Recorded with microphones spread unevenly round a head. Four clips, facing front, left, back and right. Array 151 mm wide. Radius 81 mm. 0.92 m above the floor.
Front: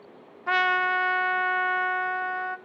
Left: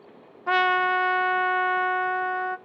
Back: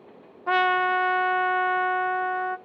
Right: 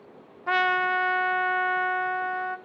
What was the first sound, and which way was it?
A trumpet, 160° left.